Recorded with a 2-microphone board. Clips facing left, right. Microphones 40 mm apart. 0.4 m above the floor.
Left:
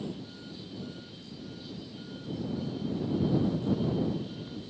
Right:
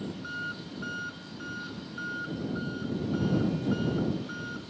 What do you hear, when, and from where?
0.0 s an engine running: 90° right